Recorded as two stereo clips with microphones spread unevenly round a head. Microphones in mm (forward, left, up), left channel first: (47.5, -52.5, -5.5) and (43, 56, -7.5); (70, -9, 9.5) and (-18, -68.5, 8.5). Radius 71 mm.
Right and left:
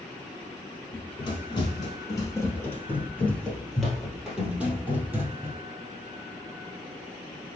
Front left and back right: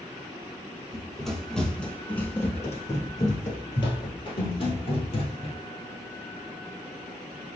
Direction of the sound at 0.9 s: 60° right.